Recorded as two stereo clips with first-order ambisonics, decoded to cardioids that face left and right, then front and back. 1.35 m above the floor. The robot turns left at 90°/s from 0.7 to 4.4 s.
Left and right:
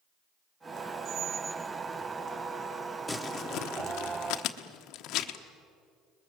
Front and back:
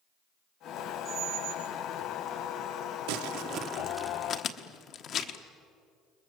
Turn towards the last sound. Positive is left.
turn(degrees=50)